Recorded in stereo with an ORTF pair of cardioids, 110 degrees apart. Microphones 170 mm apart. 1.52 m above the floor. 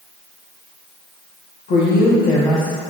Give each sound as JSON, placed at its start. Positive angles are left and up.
{"t": 1.7, "sound": "a woman speaking", "azimuth_deg": 65, "distance_m": 1.5}